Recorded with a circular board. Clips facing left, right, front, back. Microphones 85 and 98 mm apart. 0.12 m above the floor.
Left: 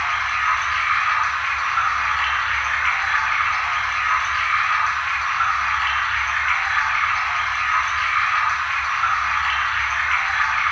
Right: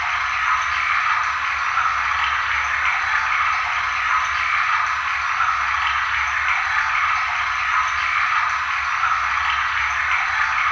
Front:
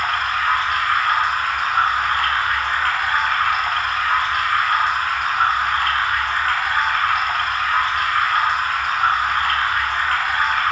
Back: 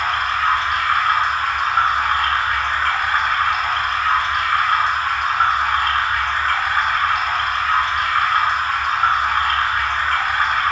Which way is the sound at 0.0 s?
Straight behind.